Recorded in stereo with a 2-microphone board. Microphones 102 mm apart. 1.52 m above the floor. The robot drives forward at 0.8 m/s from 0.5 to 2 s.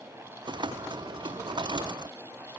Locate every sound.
Only background noise.